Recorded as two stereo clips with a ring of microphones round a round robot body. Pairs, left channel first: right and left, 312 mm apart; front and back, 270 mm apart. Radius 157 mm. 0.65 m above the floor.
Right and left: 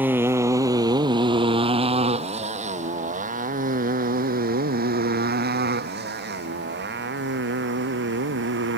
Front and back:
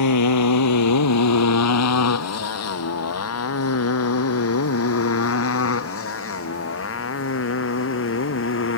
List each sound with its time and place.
0.0 s a motorcycle: 5° left; by 8.8 s 35° left